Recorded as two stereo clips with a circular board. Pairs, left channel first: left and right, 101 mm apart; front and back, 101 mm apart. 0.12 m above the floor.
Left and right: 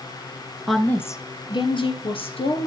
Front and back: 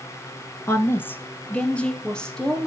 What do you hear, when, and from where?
0.7 s a woman speaking: straight ahead, 1.1 m; by 2.7 s 85° left, 3 m